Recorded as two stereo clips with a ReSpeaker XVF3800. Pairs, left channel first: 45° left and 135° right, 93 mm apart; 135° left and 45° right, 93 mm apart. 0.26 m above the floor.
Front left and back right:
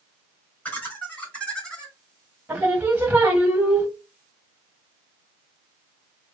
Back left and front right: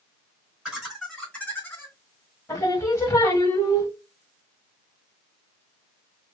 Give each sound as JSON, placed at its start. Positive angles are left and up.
{"t": 0.7, "sound": "laughter", "azimuth_deg": 20, "distance_m": 1.1}
{"t": 2.5, "sound": "singing", "azimuth_deg": 160, "distance_m": 0.9}